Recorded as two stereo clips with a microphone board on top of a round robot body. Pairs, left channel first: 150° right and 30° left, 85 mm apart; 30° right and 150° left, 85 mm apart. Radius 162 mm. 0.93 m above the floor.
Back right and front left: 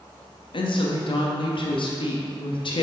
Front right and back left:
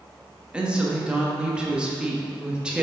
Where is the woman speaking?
130° right, 1.3 m.